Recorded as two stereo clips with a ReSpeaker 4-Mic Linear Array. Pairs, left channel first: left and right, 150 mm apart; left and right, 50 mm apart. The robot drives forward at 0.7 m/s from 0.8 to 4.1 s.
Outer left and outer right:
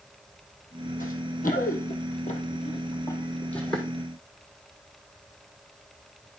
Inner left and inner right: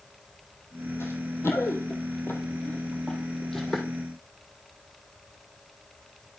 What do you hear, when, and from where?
1.0 s running footsteps: 60° left (ahead or behind), 3 m; by 3.9 s centre (ahead or behind), 3 m